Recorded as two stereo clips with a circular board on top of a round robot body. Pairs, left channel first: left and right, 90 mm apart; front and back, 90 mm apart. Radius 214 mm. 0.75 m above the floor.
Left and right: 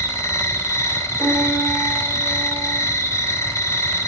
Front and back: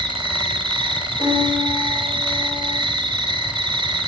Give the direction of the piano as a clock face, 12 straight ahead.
12 o'clock.